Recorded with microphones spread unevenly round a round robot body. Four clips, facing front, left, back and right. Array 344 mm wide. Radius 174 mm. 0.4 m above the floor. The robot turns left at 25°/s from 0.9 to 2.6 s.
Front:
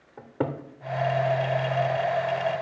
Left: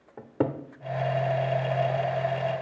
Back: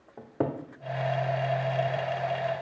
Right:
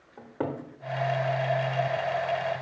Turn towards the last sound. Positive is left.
turn(degrees=50)